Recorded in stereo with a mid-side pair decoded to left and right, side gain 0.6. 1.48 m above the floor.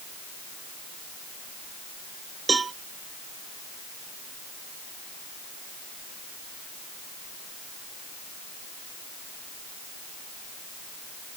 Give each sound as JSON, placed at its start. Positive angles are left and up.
{"t": 2.5, "sound": "a cowbell", "azimuth_deg": -25}